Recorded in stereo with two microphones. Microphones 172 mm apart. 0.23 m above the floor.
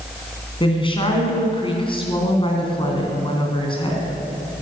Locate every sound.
0.6 s a woman speaking: 30° left (ahead or behind), 2.5 m